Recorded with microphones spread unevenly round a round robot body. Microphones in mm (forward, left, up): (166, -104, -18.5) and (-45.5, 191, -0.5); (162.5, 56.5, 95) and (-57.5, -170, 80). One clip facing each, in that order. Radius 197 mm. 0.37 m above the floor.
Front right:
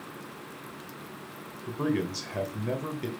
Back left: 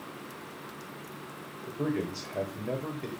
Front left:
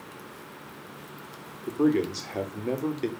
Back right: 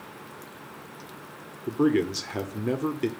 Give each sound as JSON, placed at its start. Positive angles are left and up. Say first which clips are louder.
{"t": 1.7, "sound": "a man speaking", "louder": "front right 2 dB, back right 1 dB", "azimuth_deg": -85, "distance_m": 1.3}